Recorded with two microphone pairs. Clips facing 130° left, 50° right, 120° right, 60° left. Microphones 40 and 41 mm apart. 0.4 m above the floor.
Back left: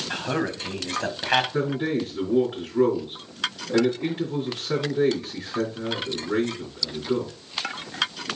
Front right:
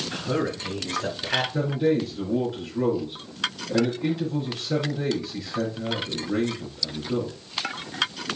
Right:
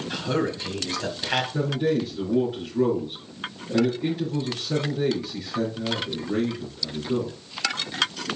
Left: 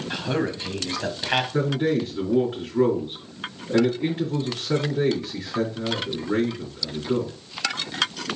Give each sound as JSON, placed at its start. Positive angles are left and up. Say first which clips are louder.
{"t": 0.1, "sound": "a man speaking", "louder": "back left 1 dB, even", "azimuth_deg": 130, "distance_m": 2.5}
{"t": 1.5, "sound": "a man speaking", "louder": "front right 2 dB, left 1 dB", "azimuth_deg": 95, "distance_m": 3.5}